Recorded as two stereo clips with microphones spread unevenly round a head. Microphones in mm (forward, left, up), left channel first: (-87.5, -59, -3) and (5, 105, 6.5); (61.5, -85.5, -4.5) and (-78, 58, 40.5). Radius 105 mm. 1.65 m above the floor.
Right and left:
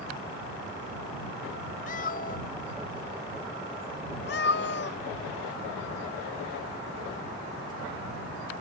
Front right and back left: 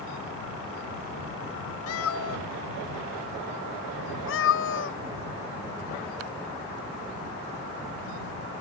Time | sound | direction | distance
1.9 | a cat meowing | 65° right | ?